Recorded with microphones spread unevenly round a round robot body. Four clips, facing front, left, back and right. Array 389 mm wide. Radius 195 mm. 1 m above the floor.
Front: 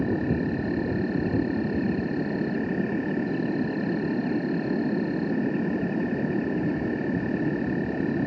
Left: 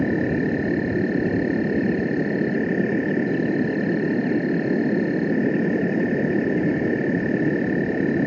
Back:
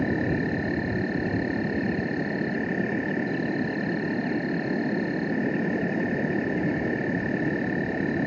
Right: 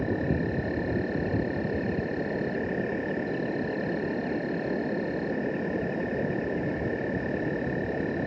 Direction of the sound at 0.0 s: 75° left.